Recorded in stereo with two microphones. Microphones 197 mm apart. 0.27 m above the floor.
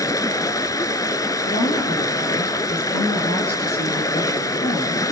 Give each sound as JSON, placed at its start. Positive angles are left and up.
{"t": 0.0, "sound": "running water", "side_deg": 20, "distance_m": 0.9}
{"t": 1.5, "sound": "a woman speaking", "side_deg": 55, "distance_m": 5.5}